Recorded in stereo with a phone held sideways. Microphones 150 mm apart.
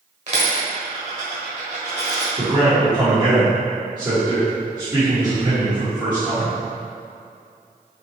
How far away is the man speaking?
About 1.1 m.